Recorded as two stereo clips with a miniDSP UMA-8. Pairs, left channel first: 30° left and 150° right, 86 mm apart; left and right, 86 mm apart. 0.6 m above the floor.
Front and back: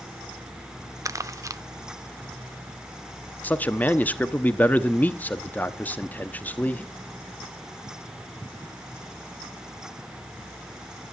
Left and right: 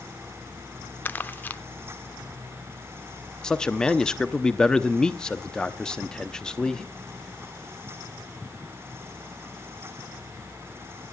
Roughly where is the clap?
I don't hear a clap.